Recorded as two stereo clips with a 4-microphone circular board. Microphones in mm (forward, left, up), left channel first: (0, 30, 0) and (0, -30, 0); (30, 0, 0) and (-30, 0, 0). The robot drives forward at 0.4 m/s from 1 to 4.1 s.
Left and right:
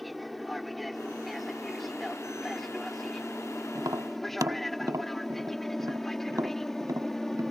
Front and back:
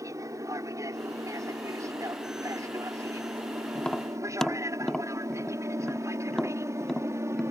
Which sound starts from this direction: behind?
An aircraft, at 0.0 s.